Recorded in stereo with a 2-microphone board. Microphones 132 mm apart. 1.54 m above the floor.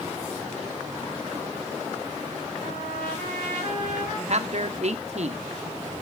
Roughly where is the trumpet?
Left.